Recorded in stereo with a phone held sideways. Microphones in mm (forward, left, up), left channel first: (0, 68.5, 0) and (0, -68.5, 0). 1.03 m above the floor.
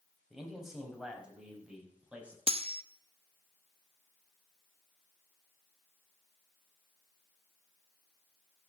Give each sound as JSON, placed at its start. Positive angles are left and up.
{"t": 0.3, "sound": "a man speaking", "side_deg": 0, "distance_m": 5.0}
{"t": 2.5, "sound": "cutlery clinking", "side_deg": -45, "distance_m": 0.7}